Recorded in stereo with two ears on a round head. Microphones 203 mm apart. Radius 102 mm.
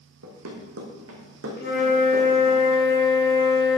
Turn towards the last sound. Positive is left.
turn(degrees=45)  # may be behind; listen again after turning